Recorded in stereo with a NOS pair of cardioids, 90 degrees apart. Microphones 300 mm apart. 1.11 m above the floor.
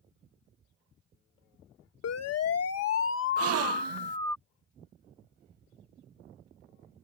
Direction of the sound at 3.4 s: 55° right.